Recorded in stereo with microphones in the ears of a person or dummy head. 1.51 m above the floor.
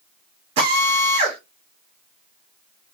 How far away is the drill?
About 1.6 m.